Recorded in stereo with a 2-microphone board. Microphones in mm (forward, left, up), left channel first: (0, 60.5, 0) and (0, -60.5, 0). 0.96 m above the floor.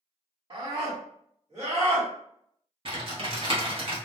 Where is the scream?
45° right (ahead or behind), 1.7 m; by 2.1 s 65° right (ahead or behind), 1.8 m.